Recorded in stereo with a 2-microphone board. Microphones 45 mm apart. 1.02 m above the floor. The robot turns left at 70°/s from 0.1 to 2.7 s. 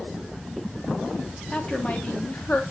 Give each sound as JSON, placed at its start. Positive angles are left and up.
{"t": 1.5, "sound": "a woman speaking", "azimuth_deg": 155, "distance_m": 1.0}